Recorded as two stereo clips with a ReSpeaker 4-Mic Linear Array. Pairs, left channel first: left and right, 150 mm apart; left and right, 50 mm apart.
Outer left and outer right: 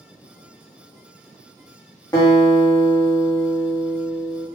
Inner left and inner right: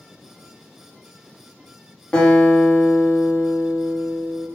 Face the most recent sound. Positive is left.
turn(degrees=25)  # may be behind; listen again after turning